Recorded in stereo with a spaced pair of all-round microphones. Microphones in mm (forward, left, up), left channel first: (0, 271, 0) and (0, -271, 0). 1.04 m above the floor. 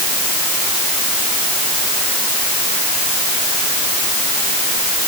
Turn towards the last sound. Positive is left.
No sound to turn to.